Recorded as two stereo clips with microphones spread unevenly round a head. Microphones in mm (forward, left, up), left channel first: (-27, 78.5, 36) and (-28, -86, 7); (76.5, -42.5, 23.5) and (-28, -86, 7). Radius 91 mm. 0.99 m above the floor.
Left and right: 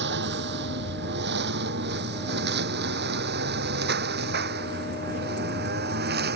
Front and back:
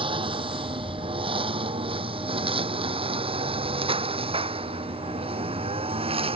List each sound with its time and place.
0.0 s a lawn mower: 110° right; by 6.4 s 120° right